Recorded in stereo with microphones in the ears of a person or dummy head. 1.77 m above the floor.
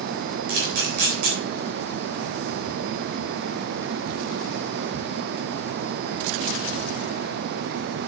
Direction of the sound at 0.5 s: 60° right (ahead or behind).